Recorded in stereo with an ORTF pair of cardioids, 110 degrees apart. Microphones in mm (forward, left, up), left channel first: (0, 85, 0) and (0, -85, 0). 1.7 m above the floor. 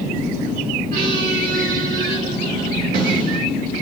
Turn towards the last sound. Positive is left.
turn(degrees=-70)